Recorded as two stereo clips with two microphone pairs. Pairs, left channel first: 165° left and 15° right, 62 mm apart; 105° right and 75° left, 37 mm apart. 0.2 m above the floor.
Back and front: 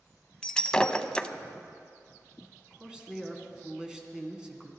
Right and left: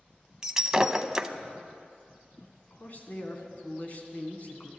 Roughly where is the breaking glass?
Behind left.